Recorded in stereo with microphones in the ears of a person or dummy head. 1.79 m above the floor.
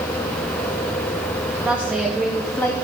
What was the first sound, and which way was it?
A woman speaking, 10° right (ahead or behind).